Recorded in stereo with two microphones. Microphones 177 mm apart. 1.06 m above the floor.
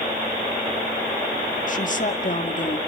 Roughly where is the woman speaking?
Left.